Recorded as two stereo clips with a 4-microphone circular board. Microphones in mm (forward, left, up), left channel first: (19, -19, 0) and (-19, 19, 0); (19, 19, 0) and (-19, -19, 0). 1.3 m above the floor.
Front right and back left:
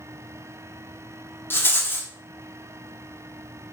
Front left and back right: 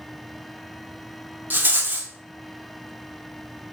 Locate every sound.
1.5 s a rattle: 85° right, 1.4 m